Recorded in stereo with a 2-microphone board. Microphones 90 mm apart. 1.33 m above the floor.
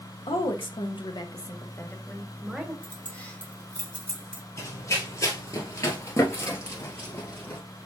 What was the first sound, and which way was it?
A woman speaking, 85° left.